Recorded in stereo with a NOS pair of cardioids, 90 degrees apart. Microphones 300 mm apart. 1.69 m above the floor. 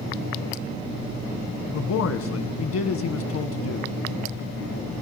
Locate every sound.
1.7 s a man speaking: 60° left, 1.5 m